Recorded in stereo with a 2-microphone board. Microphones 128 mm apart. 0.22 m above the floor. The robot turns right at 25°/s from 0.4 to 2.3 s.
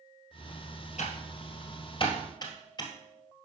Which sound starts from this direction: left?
Typing on a keyboard, at 1.0 s.